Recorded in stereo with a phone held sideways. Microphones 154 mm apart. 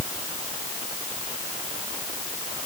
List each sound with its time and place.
Only background noise.